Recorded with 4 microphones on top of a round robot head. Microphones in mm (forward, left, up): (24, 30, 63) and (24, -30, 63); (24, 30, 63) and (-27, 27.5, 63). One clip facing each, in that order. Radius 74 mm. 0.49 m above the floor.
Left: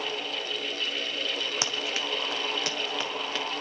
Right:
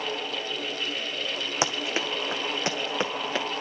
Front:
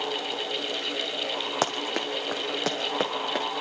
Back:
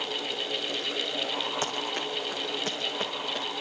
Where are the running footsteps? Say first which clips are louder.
Right 4 dB, front 3 dB; 25° right, 1.6 m.